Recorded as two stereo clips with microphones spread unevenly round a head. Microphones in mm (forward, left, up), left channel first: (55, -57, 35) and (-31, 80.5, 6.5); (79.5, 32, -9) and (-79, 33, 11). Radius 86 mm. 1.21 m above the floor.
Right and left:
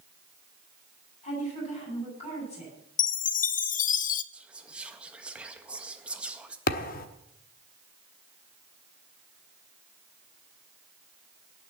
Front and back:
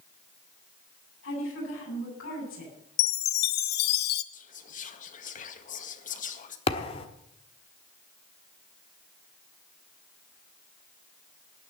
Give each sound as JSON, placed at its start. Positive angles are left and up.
{"t": 1.2, "sound": "a woman speaking", "azimuth_deg": -5, "distance_m": 9.0}
{"t": 3.0, "sound": "a chime", "azimuth_deg": -15, "distance_m": 0.6}
{"t": 4.3, "sound": "whispering", "azimuth_deg": 40, "distance_m": 1.7}
{"t": 6.7, "sound": "a thud", "azimuth_deg": -60, "distance_m": 1.0}